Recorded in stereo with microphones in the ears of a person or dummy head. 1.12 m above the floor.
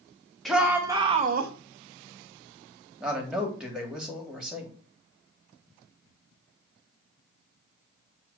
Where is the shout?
5° right (ahead or behind), 1.4 m; by 1.5 s 60° right (ahead or behind), 0.9 m.